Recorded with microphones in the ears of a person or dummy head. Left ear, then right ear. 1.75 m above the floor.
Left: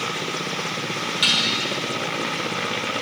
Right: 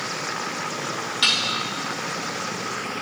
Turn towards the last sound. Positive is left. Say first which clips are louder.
# left 1 dB
turn(degrees=-10)  # may be behind; listen again after turning